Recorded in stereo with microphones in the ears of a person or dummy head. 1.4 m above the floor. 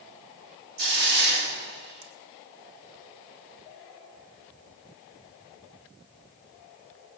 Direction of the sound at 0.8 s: 55° right (ahead or behind).